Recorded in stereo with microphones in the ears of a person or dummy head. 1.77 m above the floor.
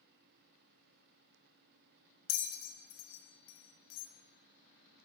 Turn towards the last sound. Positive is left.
turn(degrees=75)  # may be behind; listen again after turning